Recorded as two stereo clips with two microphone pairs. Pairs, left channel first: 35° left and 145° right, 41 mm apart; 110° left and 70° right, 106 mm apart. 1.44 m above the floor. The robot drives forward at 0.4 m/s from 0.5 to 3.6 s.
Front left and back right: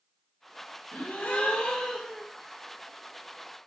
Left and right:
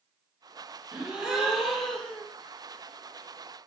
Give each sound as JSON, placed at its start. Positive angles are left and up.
{"t": 0.9, "sound": "a gasp", "azimuth_deg": 10, "distance_m": 0.8}